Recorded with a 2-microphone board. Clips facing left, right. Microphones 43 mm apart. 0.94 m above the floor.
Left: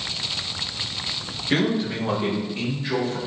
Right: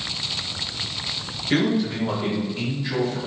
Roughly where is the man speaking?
Centre.